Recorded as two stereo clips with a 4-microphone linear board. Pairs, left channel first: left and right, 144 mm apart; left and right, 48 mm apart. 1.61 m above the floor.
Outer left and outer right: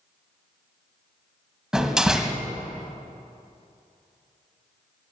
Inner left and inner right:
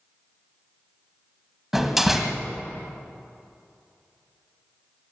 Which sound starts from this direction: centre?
A door slam, at 1.7 s.